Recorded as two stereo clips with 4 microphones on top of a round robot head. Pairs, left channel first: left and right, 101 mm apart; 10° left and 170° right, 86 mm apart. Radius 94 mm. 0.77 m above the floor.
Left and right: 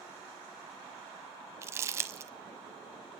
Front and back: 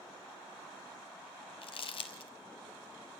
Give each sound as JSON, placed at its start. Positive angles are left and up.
{"t": 1.6, "sound": "crumpling", "azimuth_deg": -30, "distance_m": 1.2}